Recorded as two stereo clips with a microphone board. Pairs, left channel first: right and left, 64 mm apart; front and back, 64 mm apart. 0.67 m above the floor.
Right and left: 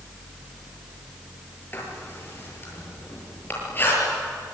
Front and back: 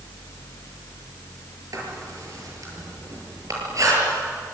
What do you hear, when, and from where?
1.7 s writing: 150° right, 8 m